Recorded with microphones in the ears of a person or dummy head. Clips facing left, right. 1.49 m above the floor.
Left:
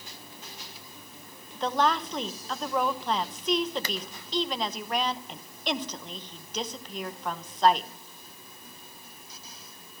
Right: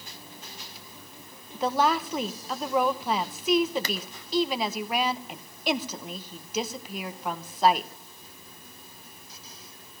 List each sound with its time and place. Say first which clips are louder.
1.5 s a woman speaking: right 2 dB; 10° right (ahead or behind), 1.1 m